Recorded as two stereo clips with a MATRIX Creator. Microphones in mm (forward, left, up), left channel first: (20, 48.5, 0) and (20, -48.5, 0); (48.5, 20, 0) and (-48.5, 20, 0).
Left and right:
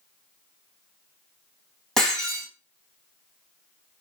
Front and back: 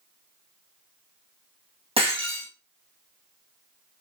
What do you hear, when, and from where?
2.0 s breaking glass: 175° left, 3.5 m